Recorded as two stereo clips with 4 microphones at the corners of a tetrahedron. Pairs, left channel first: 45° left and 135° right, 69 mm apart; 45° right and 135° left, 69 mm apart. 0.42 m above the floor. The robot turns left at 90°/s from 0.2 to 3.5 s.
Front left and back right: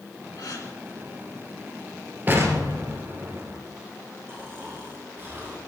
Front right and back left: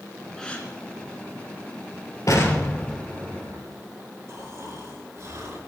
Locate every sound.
0.4 s a gasp: 40° left, 3 m; by 0.7 s 10° left, 3 m
2.3 s an explosion: 75° right, 2.5 m; by 3.6 s 175° left, 2.5 m
4.3 s snoring: 175° left, 5.5 m